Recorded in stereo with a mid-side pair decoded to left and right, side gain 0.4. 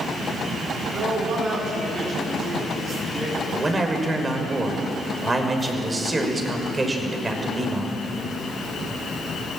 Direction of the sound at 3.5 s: 30° right.